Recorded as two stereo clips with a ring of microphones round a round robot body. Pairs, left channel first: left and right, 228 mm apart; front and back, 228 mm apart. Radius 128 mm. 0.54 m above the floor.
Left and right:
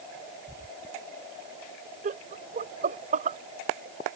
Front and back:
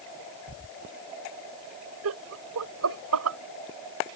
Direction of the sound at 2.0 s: 150° right.